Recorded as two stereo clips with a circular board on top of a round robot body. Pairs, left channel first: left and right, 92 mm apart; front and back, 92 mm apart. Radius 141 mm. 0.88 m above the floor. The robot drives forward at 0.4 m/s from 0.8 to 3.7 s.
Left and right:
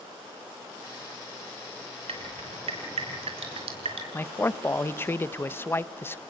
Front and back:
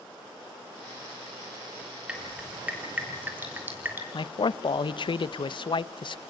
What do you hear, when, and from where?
2.1 s dripping: 100° right, 4 m; by 4.0 s 110° right, 4 m
4.1 s a man speaking: 25° left, 0.9 m